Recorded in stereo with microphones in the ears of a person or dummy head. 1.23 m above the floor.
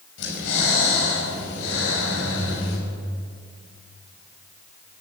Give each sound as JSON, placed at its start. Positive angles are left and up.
{"t": 0.2, "sound": "breathing", "side_deg": 80, "distance_m": 6.0}